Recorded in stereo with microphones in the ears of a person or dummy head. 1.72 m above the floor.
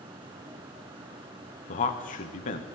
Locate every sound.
1.7 s a man speaking: 40° left (ahead or behind), 0.8 m